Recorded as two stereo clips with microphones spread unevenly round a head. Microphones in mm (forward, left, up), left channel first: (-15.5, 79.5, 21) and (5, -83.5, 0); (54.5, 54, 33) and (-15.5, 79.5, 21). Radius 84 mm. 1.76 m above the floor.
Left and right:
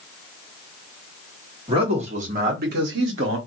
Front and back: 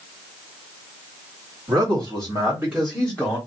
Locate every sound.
1.7 s a man speaking: 145° right, 1.5 m; by 3.4 s 90° right, 1.2 m